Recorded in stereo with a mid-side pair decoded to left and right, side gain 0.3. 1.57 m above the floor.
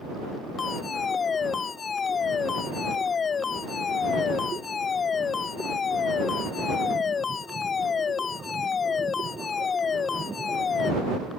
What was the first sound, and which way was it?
A fire alarm, 65° left.